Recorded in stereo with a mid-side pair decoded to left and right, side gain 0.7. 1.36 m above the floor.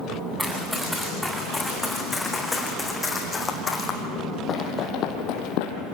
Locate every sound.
0.4 s running footsteps: straight ahead, 8.5 m; by 5.8 s 75° left, 3 m